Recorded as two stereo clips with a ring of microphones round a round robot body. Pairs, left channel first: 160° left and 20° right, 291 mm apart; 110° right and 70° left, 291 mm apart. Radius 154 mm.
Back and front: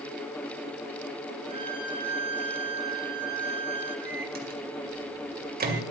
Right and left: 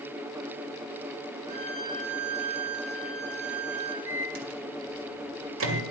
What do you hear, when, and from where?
1.5 s a violin: 50° left, 3.5 m
4.1 s a microwave: 30° left, 2.0 m